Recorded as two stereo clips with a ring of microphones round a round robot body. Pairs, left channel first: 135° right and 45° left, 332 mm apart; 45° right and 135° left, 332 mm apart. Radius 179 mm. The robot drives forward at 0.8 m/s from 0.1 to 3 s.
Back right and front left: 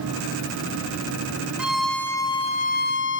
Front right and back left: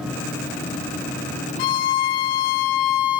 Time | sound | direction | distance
1.6 | a violin | 40° right | 1.8 m